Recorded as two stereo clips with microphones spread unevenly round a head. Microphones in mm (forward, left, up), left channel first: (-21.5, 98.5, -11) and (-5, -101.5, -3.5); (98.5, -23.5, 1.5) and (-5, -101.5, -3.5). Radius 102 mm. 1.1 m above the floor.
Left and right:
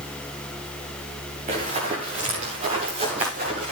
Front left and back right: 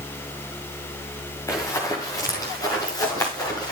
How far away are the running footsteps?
About 5.5 m.